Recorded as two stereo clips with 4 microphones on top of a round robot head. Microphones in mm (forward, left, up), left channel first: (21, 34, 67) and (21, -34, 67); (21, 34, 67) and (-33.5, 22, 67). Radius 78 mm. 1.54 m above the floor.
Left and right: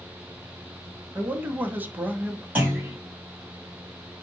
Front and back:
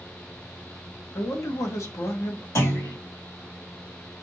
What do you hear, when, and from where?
1.1 s a man speaking: 25° right, 1.1 m
2.5 s a clunk: 20° right, 4 m